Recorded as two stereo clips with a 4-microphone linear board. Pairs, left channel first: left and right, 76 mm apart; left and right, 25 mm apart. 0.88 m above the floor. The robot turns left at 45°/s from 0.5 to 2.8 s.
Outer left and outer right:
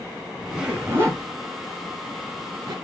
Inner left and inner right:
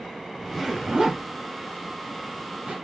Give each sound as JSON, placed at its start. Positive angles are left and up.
{"t": 0.4, "sound": "a zipper", "side_deg": -10, "distance_m": 3.0}